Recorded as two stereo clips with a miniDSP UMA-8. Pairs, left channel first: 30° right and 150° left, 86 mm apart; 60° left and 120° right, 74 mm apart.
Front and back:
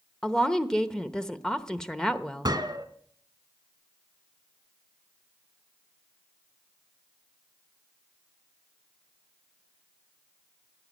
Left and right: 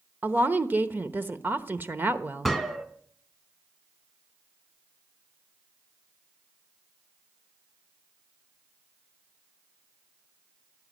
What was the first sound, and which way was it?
A woman speaking, 105° right.